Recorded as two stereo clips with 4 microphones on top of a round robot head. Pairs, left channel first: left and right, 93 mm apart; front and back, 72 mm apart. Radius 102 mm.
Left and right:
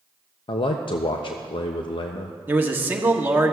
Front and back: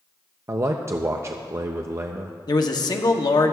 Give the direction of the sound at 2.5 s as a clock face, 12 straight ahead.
1 o'clock.